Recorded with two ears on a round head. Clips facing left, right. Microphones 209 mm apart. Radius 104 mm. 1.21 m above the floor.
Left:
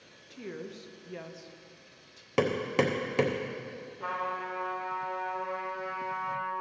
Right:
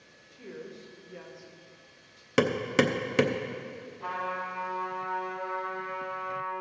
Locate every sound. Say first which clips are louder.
0.3 s a woman speaking: left 2 dB; 50° left (ahead or behind), 0.8 m
2.4 s hammering: right 2 dB; 20° right (ahead or behind), 0.6 m
4.0 s a trumpet: even; 55° left (ahead or behind), 2.5 m